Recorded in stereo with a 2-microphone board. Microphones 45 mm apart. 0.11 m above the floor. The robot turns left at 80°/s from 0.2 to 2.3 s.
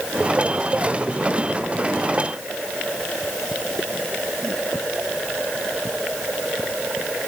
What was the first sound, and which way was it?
Only background noise.